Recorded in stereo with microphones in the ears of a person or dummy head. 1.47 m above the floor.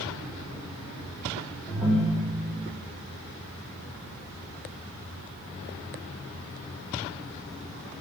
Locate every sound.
1.7 s a ringtone: 10° right (ahead or behind), 0.7 m